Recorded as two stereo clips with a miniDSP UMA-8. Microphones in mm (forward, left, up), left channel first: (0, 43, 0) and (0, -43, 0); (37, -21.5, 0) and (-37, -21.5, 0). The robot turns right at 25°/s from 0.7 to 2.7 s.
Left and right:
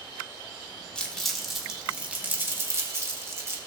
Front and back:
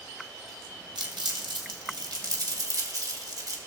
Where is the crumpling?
170° left, 1.7 m; by 3.6 s 150° right, 1.7 m.